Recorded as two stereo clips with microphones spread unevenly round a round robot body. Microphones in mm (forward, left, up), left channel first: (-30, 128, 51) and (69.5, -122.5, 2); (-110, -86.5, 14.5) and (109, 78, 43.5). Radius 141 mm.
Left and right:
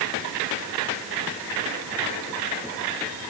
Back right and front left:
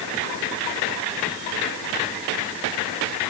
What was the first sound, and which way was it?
Only background noise.